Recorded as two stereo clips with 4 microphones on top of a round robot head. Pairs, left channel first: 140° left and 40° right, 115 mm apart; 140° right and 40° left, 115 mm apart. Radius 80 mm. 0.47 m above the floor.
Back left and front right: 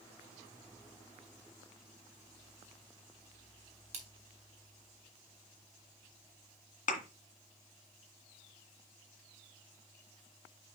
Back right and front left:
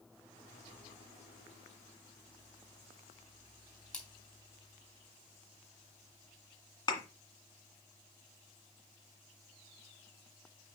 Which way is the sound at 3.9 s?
60° right.